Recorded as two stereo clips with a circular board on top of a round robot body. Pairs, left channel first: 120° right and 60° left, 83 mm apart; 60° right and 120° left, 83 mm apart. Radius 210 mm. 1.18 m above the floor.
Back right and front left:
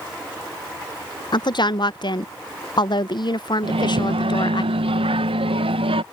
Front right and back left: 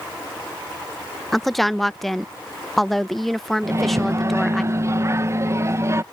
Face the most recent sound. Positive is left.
turn(degrees=60)